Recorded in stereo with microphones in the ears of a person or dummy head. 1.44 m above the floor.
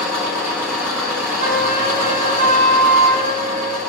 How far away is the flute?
About 2.5 m.